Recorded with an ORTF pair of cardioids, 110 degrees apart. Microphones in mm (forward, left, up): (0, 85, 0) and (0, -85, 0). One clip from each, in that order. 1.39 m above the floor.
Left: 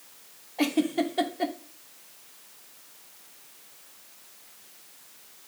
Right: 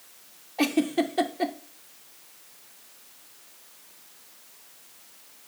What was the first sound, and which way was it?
A giggle, 10° right.